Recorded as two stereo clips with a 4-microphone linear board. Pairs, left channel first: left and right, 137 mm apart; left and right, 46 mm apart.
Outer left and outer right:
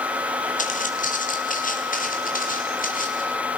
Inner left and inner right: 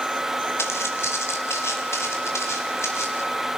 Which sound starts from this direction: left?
Footsteps, at 0.6 s.